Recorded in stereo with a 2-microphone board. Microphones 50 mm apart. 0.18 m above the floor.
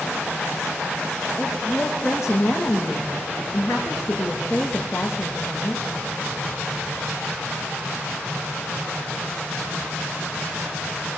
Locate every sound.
1.4 s a woman speaking: 65° left (ahead or behind), 8 m